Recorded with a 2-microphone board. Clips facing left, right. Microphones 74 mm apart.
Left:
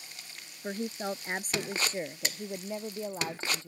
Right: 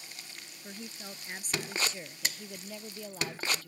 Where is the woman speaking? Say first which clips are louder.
Left 12 dB; 50° left (ahead or behind); by 3.7 s 25° left (ahead or behind).